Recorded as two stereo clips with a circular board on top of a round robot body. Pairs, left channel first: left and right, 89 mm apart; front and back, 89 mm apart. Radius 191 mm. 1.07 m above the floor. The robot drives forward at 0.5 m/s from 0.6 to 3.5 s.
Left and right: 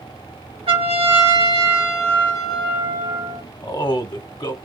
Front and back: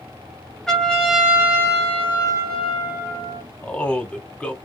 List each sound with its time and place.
0.7 s a trumpet: 85° right, 1.0 m; by 3.4 s 140° right, 1.6 m
3.6 s a man speaking: 75° left, 1.0 m